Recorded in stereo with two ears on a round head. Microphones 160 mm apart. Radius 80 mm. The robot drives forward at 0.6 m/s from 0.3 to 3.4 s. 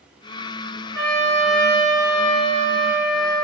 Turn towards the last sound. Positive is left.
turn(degrees=30)  # may be behind; listen again after turning